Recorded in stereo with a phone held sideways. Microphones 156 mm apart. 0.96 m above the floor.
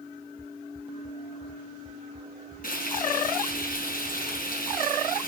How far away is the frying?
About 5 m.